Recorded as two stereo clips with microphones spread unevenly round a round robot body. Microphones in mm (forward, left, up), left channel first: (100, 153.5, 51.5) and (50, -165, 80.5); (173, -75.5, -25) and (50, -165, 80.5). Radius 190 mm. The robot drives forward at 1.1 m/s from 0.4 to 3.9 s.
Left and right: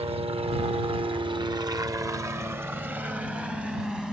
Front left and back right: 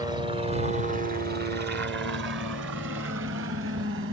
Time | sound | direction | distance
0.0 | a helicopter | 35° right | ?